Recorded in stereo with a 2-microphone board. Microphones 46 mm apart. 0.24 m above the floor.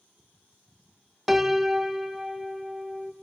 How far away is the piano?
About 0.6 m.